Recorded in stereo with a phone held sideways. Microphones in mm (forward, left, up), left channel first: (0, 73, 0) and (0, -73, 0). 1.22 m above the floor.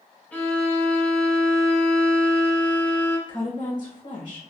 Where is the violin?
10° left (ahead or behind), 0.8 m.